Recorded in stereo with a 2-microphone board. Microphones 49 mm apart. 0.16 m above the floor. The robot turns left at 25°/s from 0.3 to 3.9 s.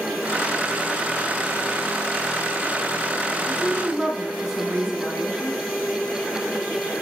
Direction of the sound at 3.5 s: 10° right (ahead or behind).